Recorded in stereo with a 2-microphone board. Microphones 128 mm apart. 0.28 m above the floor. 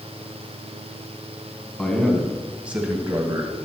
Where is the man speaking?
5° left (ahead or behind), 1.8 m; by 3.5 s 30° right (ahead or behind), 1.2 m.